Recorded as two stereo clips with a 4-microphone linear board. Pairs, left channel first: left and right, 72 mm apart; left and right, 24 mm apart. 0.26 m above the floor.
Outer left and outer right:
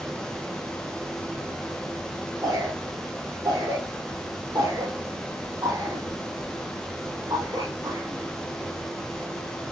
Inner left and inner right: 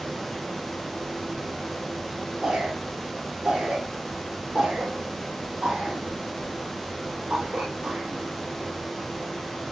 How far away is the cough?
About 6.5 m.